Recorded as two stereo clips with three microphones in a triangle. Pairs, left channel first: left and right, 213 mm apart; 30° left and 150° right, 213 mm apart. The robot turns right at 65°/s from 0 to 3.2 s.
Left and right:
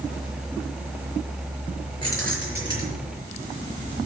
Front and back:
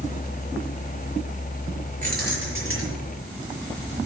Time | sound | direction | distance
2.0 | keys jangling | 155° left | 5 m